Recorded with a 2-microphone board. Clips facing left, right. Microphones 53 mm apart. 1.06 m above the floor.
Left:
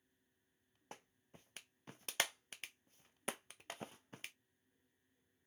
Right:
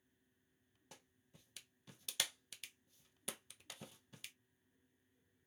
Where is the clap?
40° left (ahead or behind), 0.5 m.